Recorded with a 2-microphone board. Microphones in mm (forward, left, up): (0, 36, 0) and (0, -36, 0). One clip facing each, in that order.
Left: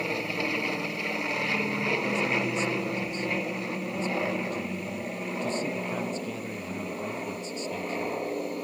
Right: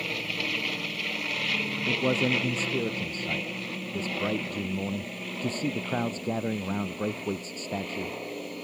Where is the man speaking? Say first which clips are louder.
Right 4 dB; 40° right (ahead or behind).